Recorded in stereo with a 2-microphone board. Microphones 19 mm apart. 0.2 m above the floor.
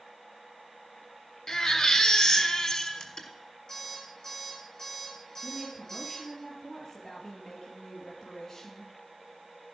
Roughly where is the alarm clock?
Left.